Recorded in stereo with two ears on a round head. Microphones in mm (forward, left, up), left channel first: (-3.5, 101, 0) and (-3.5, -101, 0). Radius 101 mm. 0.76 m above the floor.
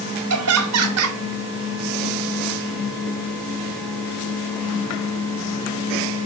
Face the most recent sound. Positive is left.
turn(degrees=-75)  # may be behind; listen again after turning